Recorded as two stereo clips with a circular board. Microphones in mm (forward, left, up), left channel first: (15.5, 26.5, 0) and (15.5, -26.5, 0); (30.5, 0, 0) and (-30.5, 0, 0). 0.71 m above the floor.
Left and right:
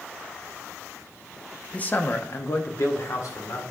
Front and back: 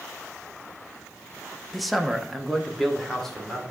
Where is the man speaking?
90° left, 0.7 m; by 3.6 s 85° left, 2.0 m.